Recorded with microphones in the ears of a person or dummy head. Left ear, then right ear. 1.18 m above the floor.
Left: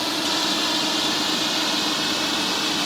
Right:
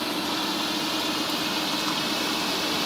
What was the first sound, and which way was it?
A drone, 25° left (ahead or behind).